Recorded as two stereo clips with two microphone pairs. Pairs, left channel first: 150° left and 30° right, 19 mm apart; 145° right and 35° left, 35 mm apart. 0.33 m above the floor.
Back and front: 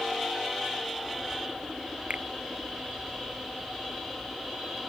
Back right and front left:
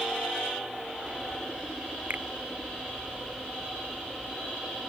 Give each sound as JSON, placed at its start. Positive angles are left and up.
{"t": 2.1, "sound": "a finger snap", "azimuth_deg": -10}